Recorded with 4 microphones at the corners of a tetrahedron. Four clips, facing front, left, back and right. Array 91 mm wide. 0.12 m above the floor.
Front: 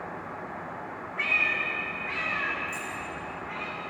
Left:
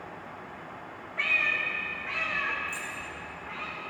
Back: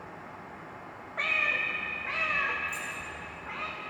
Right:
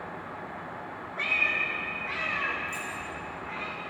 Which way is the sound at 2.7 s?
175° right.